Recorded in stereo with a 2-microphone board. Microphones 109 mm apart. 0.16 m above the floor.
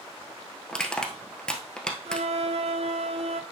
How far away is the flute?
About 0.8 m.